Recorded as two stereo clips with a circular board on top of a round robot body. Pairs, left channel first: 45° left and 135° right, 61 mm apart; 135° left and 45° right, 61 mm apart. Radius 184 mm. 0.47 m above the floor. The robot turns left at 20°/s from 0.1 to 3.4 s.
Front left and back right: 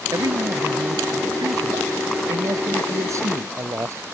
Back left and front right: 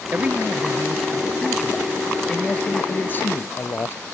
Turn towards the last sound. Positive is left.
turn(degrees=-175)